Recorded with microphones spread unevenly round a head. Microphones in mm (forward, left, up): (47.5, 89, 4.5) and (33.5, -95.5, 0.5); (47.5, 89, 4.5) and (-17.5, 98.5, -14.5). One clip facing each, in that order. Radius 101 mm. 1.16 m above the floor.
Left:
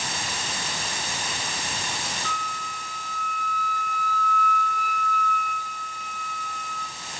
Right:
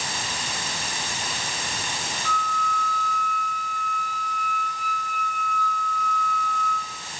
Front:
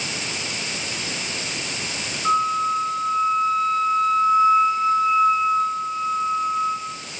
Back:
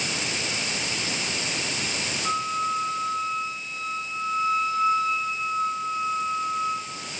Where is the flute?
40° left, 4 m.